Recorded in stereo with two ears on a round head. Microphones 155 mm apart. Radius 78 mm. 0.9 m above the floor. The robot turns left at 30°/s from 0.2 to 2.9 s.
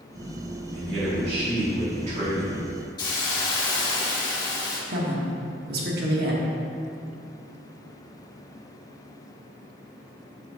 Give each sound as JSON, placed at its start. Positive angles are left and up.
{"t": 0.7, "sound": "a man speaking", "azimuth_deg": -90, "distance_m": 2.0}
{"t": 3.0, "sound": "a hiss", "side_deg": 25, "distance_m": 1.0}
{"t": 4.9, "sound": "a woman speaking", "side_deg": -65, "distance_m": 1.4}